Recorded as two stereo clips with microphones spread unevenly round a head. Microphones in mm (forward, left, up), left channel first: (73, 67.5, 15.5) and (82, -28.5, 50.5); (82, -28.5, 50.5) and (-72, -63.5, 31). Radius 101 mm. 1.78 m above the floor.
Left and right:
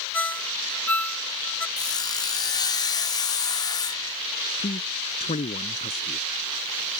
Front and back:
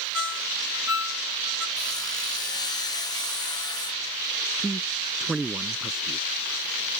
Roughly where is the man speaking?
Left.